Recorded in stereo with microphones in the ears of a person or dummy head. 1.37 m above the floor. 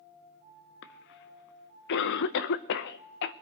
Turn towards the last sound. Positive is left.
turn(degrees=65)  # may be behind; listen again after turning